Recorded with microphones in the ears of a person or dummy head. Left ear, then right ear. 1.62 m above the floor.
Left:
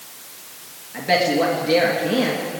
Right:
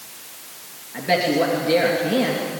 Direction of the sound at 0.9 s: 5° left (ahead or behind).